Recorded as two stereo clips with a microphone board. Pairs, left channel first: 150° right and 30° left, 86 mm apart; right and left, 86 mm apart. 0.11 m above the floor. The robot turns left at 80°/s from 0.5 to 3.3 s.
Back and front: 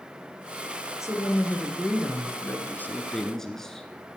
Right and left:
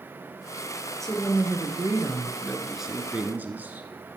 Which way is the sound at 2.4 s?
155° right.